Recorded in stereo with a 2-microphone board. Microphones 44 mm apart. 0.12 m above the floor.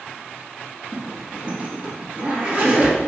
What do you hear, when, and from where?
0.9 s a zipper: 30° right (ahead or behind), 1.4 m